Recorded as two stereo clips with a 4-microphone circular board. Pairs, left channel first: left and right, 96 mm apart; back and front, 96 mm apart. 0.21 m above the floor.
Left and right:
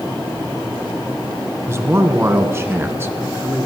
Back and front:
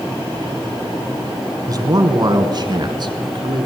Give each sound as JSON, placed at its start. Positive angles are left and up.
{"t": 1.7, "sound": "a man speaking", "azimuth_deg": -35, "distance_m": 2.5}